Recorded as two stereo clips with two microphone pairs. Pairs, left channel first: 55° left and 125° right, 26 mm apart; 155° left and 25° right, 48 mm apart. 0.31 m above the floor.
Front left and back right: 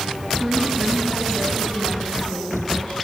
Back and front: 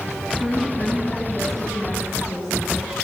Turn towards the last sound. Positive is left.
turn(degrees=30)